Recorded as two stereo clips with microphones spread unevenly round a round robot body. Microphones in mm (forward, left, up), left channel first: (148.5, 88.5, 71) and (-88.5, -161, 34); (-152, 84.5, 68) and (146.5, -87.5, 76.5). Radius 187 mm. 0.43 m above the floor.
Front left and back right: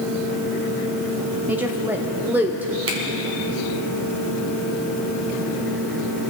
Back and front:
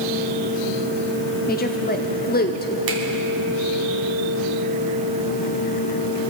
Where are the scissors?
No scissors in this recording.